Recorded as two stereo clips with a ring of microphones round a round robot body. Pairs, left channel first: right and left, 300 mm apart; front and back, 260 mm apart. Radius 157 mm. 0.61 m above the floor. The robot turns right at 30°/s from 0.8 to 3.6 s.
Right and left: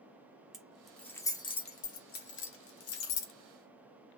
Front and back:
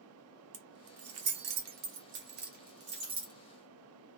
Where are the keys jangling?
Straight behind, 0.8 m; by 3.3 s 105° right, 0.8 m.